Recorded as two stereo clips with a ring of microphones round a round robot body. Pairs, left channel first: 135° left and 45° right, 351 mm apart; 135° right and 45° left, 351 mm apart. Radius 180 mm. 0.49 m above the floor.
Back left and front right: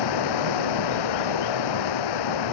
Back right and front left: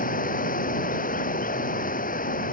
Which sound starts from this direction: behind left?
Running water, at 0.0 s.